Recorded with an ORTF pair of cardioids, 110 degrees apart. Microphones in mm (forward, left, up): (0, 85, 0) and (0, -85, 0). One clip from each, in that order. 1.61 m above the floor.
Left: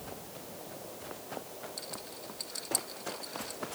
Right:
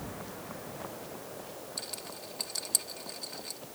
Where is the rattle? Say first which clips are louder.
Right 2 dB; 30° right.